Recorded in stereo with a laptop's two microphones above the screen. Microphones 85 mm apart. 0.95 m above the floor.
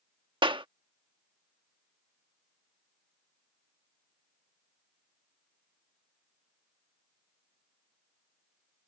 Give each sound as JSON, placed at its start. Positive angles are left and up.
{"t": 0.4, "sound": "a clap", "side_deg": -75}